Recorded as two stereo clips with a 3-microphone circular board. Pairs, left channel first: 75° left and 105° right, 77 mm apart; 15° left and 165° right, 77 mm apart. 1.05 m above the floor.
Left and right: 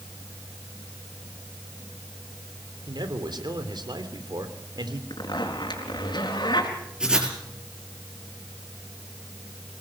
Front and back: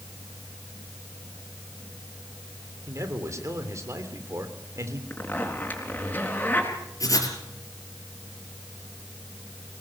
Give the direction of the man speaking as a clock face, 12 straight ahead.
4 o'clock.